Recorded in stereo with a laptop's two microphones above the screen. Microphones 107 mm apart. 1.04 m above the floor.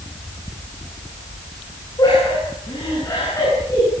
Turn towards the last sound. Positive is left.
turn(degrees=25)  # may be behind; listen again after turning